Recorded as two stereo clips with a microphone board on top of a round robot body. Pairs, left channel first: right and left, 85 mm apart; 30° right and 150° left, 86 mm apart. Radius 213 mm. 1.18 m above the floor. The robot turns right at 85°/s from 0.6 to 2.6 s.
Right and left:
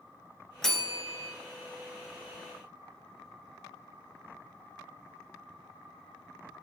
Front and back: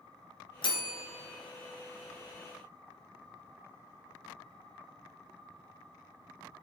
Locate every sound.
0.6 s a bell: 5° right, 1.5 m; by 1.3 s 55° left, 1.5 m